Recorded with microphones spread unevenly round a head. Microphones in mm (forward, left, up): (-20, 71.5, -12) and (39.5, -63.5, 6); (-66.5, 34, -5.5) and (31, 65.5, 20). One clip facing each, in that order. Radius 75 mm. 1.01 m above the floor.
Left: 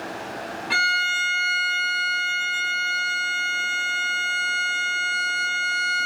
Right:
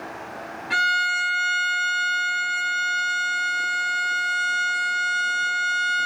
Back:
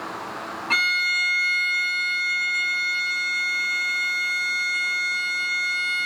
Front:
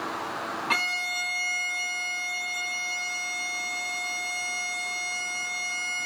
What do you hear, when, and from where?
0.7 s a violin: 95° left, 1.5 m